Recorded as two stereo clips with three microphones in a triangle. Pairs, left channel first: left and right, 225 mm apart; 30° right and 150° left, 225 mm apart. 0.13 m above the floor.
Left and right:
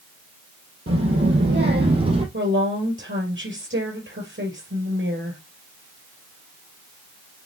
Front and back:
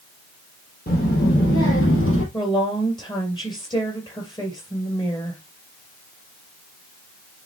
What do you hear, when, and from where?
0.9 s a child speaking: 75° right, 3 m; by 2.2 s 35° right, 2.5 m
2.3 s a woman speaking: 100° right, 3 m